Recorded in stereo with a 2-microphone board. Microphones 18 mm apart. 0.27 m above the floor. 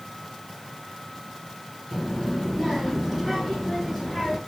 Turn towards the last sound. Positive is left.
turn(degrees=-25)  # may be behind; listen again after turning